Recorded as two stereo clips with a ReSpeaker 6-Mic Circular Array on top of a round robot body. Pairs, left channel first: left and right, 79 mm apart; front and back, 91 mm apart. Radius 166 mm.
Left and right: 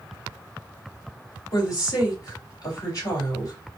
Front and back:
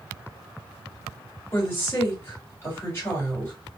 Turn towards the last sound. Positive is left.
turn(degrees=60)